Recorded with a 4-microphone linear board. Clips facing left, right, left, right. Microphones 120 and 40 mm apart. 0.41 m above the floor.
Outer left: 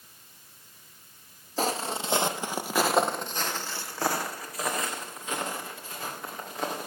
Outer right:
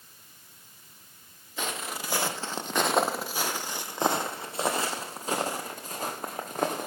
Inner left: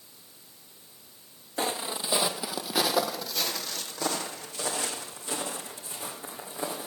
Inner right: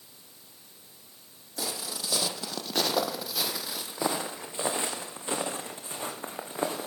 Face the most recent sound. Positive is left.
turn(degrees=-45)  # may be behind; listen again after turning